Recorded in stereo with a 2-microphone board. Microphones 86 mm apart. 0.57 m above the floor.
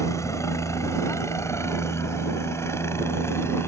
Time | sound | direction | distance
0.0 | a helicopter | 35° left (ahead or behind) | ?